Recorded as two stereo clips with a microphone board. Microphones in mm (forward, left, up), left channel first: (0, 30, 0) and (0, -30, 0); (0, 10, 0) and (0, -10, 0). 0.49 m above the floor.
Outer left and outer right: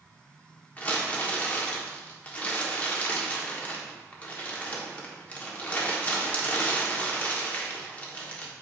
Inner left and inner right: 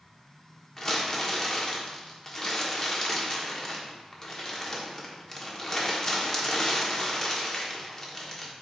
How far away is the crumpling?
About 1.1 m.